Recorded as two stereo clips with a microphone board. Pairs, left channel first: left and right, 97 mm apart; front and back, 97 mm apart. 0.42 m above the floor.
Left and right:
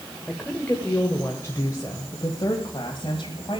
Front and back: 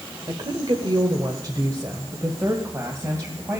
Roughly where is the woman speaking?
Behind.